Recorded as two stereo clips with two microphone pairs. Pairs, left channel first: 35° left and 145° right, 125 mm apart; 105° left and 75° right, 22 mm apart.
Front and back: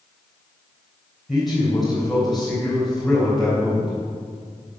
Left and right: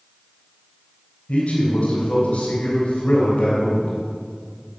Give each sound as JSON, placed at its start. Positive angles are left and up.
{"t": 1.3, "sound": "a man speaking", "azimuth_deg": 125, "distance_m": 3.5}